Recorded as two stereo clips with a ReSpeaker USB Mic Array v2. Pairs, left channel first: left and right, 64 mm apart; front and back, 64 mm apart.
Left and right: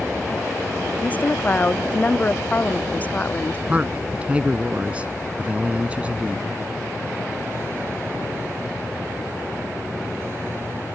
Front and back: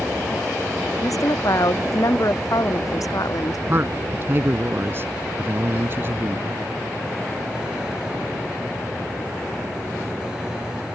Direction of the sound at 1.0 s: 25° left.